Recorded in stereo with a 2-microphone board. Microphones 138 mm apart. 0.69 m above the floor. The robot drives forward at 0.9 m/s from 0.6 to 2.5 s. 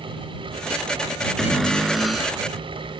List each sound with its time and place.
1.4 s a cupboard door: centre (ahead or behind)